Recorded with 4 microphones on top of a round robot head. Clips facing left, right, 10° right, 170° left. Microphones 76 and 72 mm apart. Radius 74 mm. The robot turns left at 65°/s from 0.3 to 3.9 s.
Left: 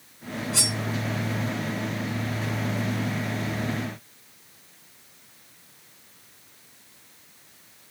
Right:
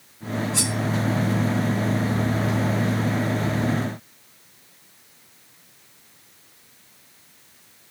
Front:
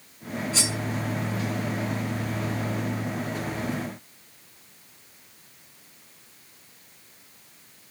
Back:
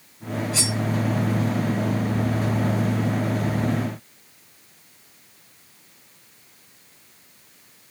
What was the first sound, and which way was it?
Cutlery clinking, 55° left.